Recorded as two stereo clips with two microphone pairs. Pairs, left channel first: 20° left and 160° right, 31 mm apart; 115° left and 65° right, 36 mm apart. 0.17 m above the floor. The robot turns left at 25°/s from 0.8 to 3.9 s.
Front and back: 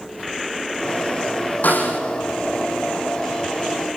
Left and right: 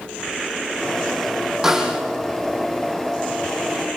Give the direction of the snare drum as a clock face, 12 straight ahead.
12 o'clock.